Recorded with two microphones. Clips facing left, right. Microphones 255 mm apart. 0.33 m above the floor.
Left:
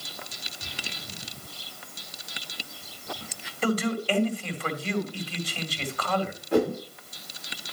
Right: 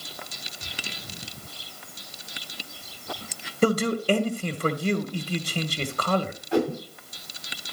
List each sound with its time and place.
3.6 s a man speaking: 45° right (ahead or behind), 1.9 m
6.5 s a whoosh: 60° left (ahead or behind), 6 m